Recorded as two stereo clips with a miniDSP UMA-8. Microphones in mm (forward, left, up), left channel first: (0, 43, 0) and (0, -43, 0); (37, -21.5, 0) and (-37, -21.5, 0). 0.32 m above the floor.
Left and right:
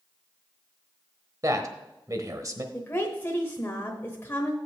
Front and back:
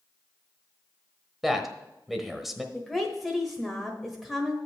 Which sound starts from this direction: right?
A man speaking, at 1.4 s.